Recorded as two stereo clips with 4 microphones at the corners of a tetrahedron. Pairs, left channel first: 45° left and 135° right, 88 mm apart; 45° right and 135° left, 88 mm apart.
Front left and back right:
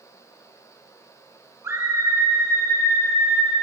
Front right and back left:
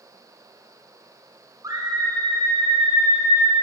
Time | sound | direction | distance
1.6 | a scream | 170° left | 2.5 m